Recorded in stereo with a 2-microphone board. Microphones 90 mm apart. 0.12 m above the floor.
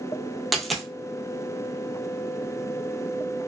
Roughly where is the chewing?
No chewing in this recording.